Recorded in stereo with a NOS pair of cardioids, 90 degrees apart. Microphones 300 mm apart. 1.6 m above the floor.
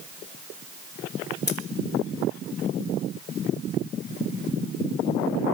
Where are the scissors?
35° left, 3 m.